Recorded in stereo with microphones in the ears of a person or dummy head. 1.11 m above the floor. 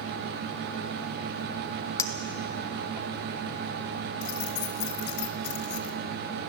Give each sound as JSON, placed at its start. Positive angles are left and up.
{"t": 2.0, "sound": "a clink", "side_deg": 15, "distance_m": 1.1}
{"t": 4.2, "sound": "keys jangling", "side_deg": 60, "distance_m": 2.0}